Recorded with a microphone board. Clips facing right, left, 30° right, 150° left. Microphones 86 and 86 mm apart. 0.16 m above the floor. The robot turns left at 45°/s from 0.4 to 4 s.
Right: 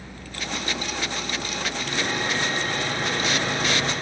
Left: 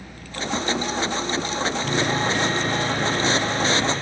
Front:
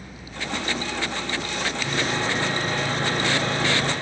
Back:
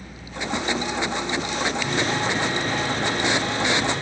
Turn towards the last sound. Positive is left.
turn(degrees=-25)